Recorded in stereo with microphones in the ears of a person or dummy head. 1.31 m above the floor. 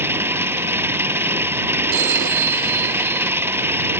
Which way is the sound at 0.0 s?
15° right (ahead or behind).